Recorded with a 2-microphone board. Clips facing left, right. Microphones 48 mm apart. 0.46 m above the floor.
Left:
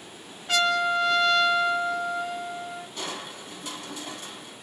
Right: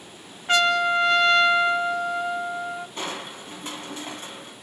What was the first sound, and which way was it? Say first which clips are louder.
A trumpet: right 3 dB; 35° right (ahead or behind).